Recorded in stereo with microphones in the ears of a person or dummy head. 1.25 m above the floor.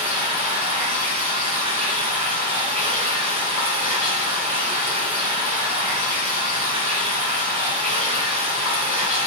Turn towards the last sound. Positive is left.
turn(degrees=-35)  # may be behind; listen again after turning